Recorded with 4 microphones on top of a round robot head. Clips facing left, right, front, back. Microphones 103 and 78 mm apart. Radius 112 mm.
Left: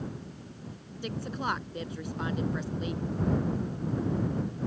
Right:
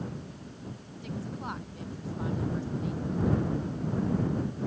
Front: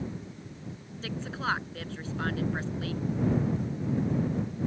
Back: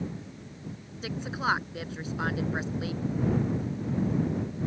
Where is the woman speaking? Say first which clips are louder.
Left 4 dB, back 3 dB; 105° left.